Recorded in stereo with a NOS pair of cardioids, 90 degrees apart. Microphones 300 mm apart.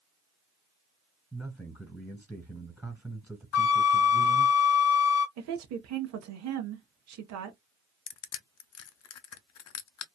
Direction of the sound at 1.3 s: 5° left.